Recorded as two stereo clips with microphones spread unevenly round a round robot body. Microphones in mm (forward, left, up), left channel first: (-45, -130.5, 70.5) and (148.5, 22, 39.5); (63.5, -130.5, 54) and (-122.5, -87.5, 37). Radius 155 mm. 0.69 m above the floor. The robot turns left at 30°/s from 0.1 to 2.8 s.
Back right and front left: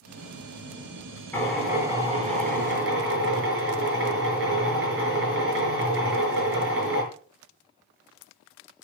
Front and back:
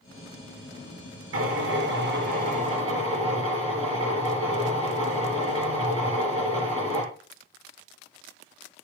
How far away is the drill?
About 6 m.